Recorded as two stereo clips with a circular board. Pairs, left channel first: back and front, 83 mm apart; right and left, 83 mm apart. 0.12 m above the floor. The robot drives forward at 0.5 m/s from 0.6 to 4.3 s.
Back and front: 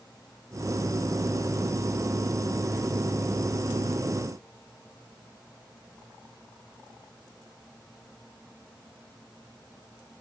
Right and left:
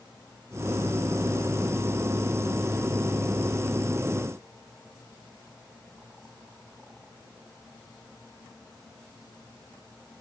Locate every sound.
Only background noise.